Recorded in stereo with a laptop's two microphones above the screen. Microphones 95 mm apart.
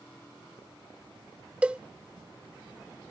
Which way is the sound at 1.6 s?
15° right (ahead or behind).